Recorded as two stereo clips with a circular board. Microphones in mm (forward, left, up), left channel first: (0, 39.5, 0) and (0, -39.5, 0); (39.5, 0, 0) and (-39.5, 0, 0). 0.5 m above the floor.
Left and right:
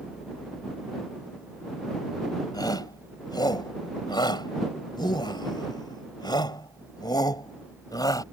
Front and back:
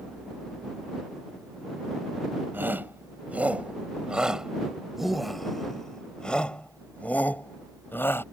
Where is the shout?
115° left; by 8.2 s 60° left.